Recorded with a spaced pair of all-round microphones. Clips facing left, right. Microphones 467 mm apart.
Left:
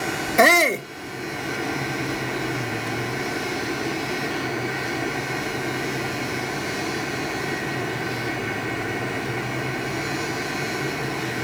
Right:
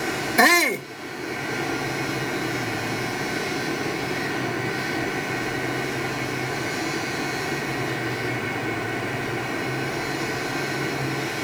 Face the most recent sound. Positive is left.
turn(degrees=-10)  # may be behind; listen again after turning